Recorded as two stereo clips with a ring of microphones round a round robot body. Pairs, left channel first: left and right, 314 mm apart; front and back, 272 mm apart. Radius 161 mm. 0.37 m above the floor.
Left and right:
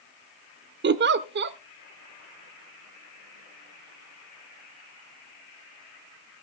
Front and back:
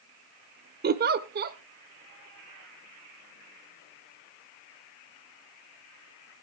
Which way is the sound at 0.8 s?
135° right.